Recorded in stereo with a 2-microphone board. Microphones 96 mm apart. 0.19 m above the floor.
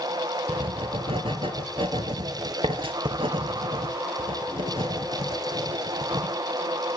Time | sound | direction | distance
0.5 | writing | 70° right (ahead or behind) | 2 m